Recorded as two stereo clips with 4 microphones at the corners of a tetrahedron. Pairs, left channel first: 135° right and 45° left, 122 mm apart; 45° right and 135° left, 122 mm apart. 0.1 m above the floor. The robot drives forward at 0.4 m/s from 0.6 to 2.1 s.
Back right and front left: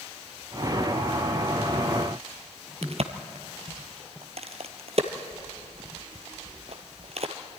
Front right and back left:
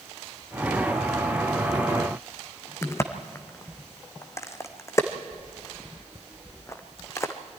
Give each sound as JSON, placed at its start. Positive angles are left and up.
{"t": 2.8, "sound": "a crack", "azimuth_deg": 20, "distance_m": 1.4}